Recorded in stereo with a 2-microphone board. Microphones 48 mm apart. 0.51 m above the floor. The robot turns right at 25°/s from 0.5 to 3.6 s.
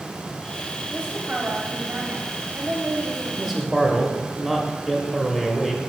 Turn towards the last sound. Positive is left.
turn(degrees=-15)  # may be behind; listen again after turning